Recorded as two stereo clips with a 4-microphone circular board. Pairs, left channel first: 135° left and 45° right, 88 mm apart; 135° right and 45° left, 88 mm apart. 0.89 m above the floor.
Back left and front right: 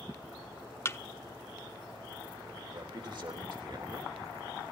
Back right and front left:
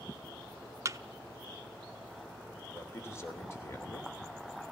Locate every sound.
0.8 s a thud: 85° left, 0.5 m
2.7 s a man speaking: 75° right, 3 m